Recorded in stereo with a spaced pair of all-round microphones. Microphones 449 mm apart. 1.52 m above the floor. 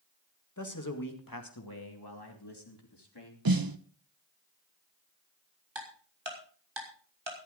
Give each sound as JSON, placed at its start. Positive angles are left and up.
{"t": 0.6, "sound": "a man speaking", "side_deg": 40, "distance_m": 2.0}
{"t": 3.5, "sound": "a snare drum", "side_deg": -50, "distance_m": 0.8}
{"t": 5.8, "sound": "ticking", "side_deg": -65, "distance_m": 3.5}